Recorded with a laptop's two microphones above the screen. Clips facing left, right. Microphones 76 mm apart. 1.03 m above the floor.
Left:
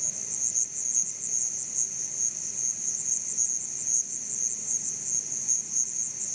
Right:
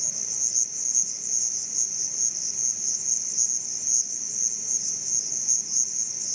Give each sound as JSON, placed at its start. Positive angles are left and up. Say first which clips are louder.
{"t": 0.0, "sound": "an insect", "louder": "right 1 dB", "side_deg": -10, "distance_m": 1.0}